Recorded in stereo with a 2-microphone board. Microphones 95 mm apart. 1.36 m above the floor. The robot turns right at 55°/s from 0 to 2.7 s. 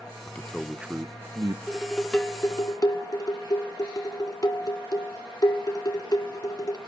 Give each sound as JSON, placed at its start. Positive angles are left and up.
{"t": 0.3, "sound": "a man speaking", "azimuth_deg": 155, "distance_m": 0.7}
{"t": 1.7, "sound": "dishes clattering", "azimuth_deg": -15, "distance_m": 1.8}